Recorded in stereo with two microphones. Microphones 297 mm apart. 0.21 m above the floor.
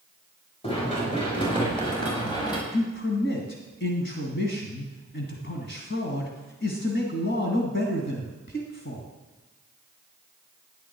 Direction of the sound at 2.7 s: 40° left (ahead or behind).